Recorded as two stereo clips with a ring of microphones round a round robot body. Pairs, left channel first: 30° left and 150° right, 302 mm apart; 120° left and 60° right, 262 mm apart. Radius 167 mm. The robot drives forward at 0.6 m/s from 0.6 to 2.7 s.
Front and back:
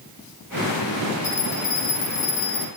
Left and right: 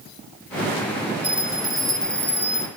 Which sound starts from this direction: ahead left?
A bell, at 1.2 s.